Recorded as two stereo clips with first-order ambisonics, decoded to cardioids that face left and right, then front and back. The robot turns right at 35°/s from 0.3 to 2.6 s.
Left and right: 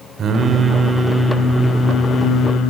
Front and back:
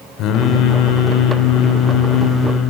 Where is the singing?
30° right, 1.5 m; by 2.7 s 50° left, 1.5 m.